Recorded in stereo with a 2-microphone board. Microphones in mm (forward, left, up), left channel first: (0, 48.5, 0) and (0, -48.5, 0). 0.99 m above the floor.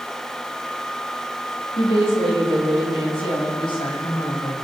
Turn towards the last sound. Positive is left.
turn(degrees=55)  # may be behind; listen again after turning